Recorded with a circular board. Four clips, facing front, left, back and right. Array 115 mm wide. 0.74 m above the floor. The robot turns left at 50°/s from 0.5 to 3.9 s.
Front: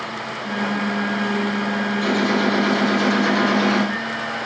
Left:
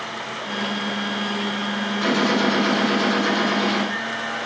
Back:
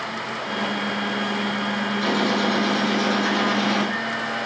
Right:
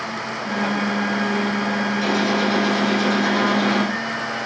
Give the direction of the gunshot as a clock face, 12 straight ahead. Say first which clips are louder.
Left 2 dB, front 2 dB; 9 o'clock.